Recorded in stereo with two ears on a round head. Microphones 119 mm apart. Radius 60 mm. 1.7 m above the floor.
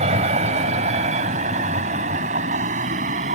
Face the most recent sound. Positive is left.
turn(degrees=-65)  # may be behind; listen again after turning